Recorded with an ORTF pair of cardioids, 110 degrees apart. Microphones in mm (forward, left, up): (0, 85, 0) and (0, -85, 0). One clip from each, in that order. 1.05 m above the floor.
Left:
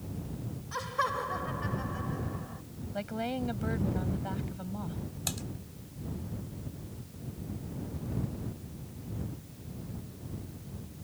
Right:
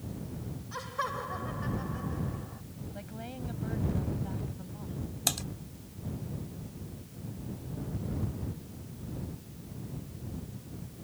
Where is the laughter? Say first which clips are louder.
Left 3 dB; 20° left.